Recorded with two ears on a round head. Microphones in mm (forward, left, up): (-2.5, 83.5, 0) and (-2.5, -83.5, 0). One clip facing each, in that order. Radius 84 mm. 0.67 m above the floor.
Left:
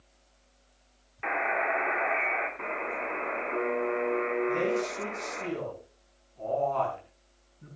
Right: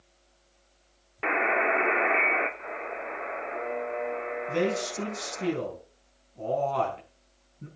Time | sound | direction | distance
1.2 | a buzzer | 55° right (ahead or behind) | 2 m
2.6 | a buzzer | 80° left | 5.5 m
4.5 | a man speaking | 45° right (ahead or behind) | 5 m